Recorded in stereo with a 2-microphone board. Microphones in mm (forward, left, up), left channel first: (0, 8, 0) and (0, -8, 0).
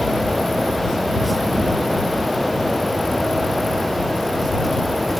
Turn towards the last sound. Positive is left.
No sound to turn to.